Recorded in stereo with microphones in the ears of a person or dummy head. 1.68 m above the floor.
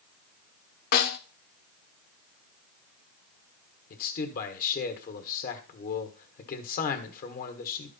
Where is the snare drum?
50° left (ahead or behind), 0.7 m.